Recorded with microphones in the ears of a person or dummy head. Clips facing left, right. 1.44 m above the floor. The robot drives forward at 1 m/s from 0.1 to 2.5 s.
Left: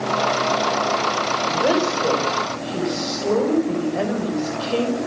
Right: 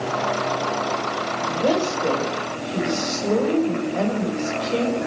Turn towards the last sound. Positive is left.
turn(degrees=5)  # may be behind; listen again after turning